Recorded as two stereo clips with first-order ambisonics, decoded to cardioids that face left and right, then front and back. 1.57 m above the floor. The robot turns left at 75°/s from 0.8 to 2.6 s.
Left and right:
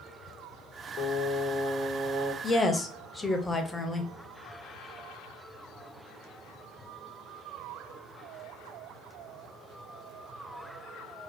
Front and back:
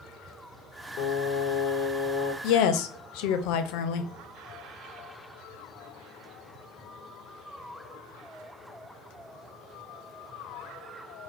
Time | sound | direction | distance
1.0 | singing | 20° left | 0.8 m
2.4 | a woman speaking | 25° left | 0.5 m